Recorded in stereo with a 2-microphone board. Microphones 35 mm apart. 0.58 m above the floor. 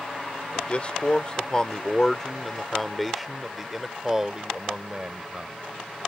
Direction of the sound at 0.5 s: 40° left (ahead or behind).